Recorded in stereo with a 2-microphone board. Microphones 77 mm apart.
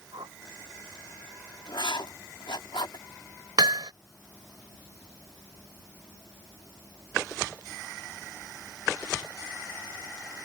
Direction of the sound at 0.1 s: 70° right (ahead or behind).